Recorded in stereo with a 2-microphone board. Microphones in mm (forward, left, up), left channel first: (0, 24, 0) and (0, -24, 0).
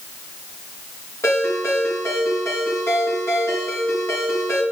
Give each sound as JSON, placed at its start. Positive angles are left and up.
{"t": 1.2, "sound": "a ringtone", "side_deg": 85, "distance_m": 6.0}